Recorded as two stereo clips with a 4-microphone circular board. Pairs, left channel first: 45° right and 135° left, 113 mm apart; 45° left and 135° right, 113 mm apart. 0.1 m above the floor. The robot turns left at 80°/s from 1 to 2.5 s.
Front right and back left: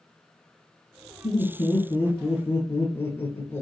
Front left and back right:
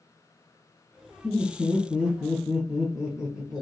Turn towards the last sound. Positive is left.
turn(degrees=-60)